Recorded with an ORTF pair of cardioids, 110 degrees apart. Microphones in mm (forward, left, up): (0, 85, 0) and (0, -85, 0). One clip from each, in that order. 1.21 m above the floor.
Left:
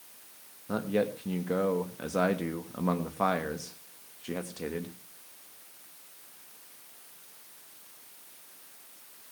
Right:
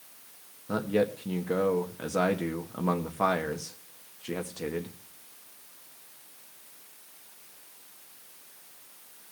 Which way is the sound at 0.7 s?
5° right.